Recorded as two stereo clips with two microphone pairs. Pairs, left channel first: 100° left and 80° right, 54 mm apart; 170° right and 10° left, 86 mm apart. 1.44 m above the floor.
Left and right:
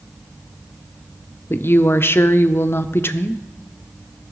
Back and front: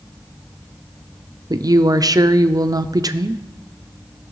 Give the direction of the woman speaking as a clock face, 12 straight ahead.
10 o'clock.